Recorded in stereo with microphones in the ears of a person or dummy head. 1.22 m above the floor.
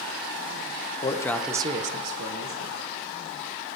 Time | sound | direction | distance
1.0 | a man speaking | 30° left (ahead or behind) | 0.8 m